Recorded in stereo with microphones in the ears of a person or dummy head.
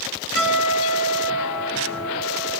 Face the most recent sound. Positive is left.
turn(degrees=75)  # may be behind; listen again after turning